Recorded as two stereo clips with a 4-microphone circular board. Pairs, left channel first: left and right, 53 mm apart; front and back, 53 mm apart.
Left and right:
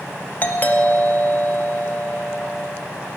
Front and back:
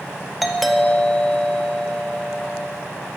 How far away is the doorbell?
About 1.3 m.